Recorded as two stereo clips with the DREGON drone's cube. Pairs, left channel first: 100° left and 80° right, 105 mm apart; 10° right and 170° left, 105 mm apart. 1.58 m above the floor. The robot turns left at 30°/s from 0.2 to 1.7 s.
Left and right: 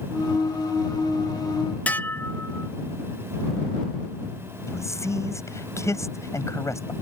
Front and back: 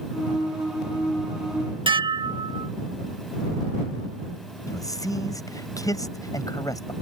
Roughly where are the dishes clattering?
Behind.